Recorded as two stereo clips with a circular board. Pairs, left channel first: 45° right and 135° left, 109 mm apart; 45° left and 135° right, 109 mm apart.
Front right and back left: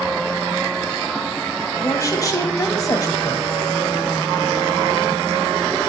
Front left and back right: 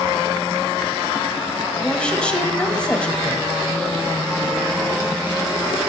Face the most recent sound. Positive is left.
turn(degrees=-25)